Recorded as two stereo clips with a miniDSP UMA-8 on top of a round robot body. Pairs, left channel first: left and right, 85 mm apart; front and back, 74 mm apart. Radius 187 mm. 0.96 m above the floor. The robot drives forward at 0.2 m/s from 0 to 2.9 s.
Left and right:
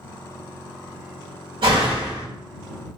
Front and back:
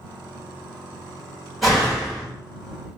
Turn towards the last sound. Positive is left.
turn(degrees=-95)